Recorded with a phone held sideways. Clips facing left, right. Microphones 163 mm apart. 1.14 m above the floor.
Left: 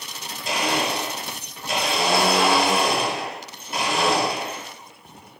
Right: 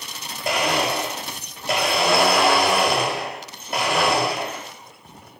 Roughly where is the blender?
Right.